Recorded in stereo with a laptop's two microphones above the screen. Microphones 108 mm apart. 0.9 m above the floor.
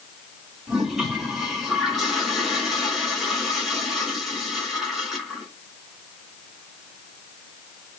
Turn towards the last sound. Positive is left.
turn(degrees=-5)  # may be behind; listen again after turning